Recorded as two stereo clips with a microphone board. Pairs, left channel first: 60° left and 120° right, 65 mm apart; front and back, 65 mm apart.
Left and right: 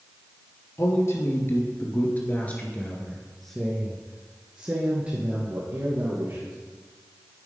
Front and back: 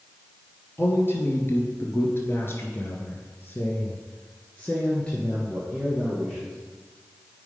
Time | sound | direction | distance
0.8 | a man speaking | 45° left | 1.9 m